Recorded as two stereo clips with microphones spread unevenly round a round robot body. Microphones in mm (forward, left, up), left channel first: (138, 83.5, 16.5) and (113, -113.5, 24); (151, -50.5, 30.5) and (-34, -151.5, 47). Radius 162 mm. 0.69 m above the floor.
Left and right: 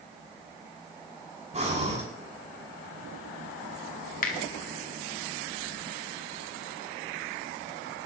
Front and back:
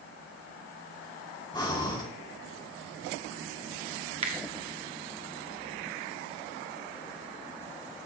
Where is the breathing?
40° right, 6 m.